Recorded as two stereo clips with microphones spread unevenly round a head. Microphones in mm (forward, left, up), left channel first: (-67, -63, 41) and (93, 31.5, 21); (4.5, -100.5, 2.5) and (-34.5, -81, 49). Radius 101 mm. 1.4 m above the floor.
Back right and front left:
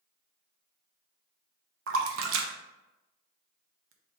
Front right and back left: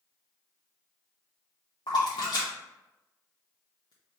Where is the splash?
50° left, 0.5 m.